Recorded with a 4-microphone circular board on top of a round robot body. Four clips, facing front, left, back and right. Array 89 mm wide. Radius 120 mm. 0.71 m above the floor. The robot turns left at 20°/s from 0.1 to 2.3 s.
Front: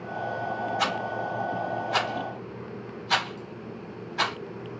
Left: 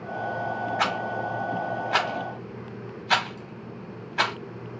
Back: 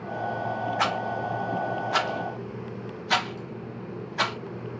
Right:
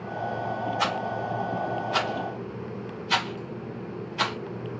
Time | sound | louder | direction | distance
0.8 | a rattle | left 2 dB, back 1 dB | 130° left | 1.3 m